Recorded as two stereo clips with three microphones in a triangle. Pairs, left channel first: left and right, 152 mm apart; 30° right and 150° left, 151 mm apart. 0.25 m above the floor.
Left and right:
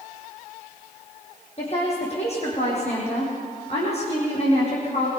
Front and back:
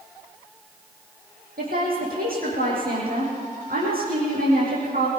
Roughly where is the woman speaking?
Behind left.